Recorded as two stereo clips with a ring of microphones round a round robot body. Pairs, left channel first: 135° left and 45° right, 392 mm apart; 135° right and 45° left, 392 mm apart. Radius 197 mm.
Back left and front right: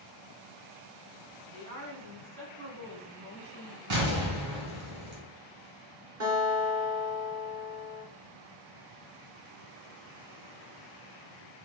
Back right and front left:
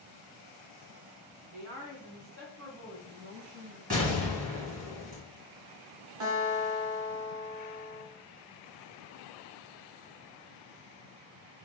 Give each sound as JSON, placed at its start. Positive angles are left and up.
{"t": 1.5, "sound": "a woman speaking", "azimuth_deg": -5, "distance_m": 2.5}
{"t": 3.9, "sound": "an explosion", "azimuth_deg": -25, "distance_m": 2.0}
{"t": 6.2, "sound": "a guitar", "azimuth_deg": 10, "distance_m": 1.8}